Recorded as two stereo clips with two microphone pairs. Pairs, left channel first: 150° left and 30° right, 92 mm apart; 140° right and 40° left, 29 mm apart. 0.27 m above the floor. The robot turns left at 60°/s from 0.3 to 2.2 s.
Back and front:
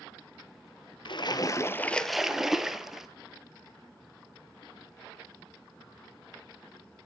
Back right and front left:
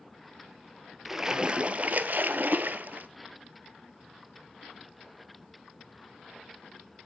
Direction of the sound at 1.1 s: 125° left.